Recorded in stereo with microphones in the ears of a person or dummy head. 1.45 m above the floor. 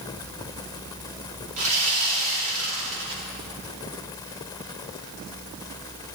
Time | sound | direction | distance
1.6 | sawing | 40° right (ahead or behind) | 3 m